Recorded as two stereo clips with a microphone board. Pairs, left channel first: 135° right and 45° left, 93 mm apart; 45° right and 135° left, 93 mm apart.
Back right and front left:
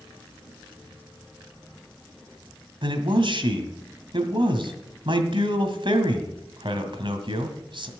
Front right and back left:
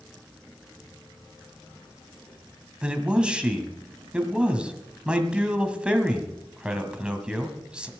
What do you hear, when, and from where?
2.8 s a man speaking: 55° left, 1.9 m